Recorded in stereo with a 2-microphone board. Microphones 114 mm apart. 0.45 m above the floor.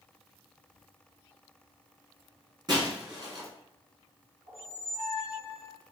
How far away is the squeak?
About 1.7 m.